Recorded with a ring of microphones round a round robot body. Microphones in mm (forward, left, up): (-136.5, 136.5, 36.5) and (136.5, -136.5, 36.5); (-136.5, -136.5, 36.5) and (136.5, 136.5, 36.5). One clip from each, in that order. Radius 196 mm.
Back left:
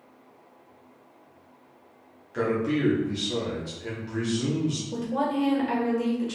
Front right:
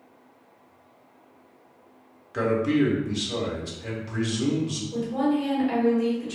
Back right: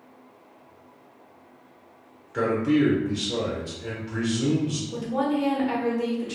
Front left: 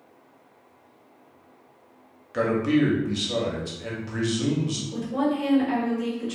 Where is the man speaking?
15° left, 0.8 m.